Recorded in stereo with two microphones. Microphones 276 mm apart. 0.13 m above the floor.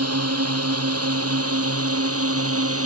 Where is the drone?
60° right (ahead or behind); by 2.9 s 55° right (ahead or behind).